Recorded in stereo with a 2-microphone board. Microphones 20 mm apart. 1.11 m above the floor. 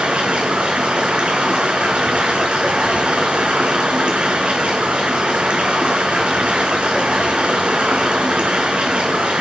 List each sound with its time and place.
0.0 s running water: 75° right (ahead or behind), 4.5 m